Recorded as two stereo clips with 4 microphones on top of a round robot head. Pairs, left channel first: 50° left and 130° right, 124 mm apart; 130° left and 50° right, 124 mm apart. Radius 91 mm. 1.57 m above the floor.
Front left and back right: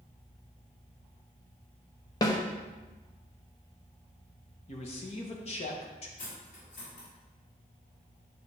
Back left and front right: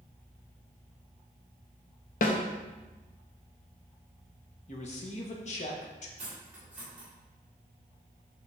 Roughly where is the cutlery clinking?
Ahead left.